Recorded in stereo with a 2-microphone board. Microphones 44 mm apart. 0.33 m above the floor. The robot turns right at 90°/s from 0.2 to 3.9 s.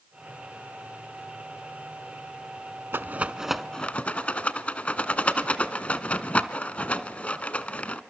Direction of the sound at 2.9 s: 55° right (ahead or behind).